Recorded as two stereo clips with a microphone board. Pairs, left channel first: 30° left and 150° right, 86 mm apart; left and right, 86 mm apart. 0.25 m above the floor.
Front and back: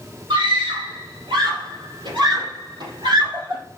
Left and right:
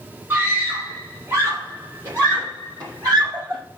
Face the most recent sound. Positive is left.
turn(degrees=-135)